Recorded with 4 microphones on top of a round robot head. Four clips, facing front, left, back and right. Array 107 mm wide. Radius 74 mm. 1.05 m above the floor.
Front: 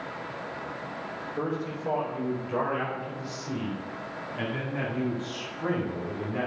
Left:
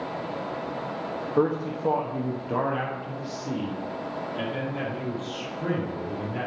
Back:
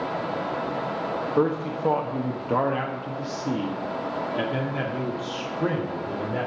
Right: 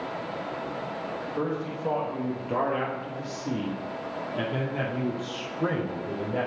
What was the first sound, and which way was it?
A man speaking, 140° left.